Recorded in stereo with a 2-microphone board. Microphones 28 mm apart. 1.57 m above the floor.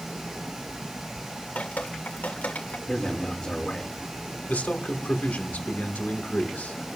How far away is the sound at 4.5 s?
About 2 m.